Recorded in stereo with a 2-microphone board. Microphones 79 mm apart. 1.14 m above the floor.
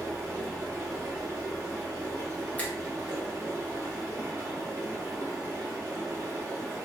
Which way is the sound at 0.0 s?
40° right (ahead or behind).